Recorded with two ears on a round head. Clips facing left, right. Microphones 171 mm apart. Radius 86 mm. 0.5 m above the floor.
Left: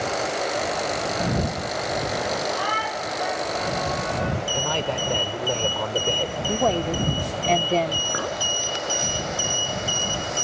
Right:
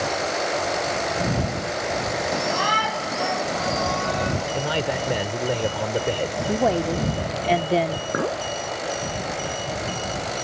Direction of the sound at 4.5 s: 15° right (ahead or behind).